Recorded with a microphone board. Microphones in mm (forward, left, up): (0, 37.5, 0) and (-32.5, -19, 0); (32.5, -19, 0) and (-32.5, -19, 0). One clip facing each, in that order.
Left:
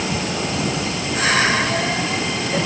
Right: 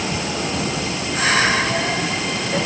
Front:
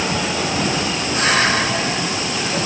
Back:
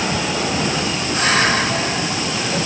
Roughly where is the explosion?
No explosion in this recording.